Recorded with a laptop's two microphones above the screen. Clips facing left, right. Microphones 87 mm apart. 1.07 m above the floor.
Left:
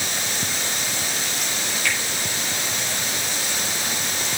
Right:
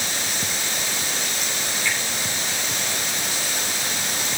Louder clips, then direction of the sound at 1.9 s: Left 1 dB; 70° left (ahead or behind).